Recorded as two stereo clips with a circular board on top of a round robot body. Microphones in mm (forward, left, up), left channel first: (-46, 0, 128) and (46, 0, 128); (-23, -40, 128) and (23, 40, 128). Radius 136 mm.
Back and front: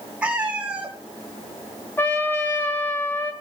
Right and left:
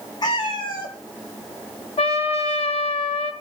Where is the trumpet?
110° right, 1.1 m.